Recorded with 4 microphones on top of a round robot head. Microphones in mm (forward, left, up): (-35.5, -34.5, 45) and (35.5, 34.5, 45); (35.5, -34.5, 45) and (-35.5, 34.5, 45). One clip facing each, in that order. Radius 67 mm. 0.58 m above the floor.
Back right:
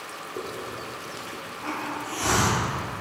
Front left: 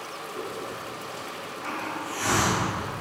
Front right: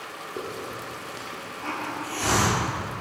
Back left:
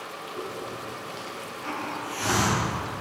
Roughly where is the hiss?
Right.